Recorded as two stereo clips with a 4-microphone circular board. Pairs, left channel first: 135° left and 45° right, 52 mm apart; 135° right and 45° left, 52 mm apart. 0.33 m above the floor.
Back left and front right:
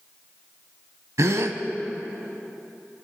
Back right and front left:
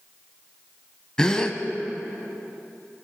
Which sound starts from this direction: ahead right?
A gasp, at 1.2 s.